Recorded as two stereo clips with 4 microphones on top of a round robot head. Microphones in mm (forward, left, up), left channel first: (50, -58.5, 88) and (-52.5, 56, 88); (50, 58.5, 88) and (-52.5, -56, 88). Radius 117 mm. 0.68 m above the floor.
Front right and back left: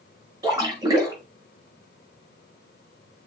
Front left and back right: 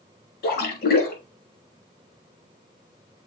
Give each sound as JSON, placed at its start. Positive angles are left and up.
{"t": 0.4, "sound": "a splash", "azimuth_deg": 65, "distance_m": 5.5}